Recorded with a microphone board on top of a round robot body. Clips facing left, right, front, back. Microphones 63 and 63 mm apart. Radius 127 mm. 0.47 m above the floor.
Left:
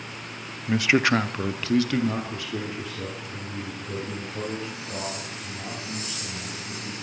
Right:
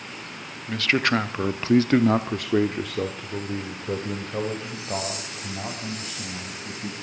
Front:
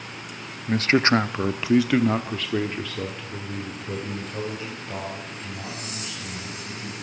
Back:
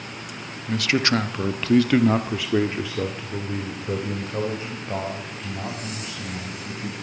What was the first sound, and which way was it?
A man speaking, 30° left.